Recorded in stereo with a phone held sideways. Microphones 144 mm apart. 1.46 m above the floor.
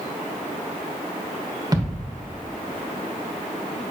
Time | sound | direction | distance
1.7 | a thud | 25° right (ahead or behind) | 1.2 m